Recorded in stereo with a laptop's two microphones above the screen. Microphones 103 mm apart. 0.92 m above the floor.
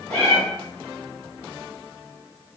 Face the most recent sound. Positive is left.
turn(degrees=15)  # may be behind; listen again after turning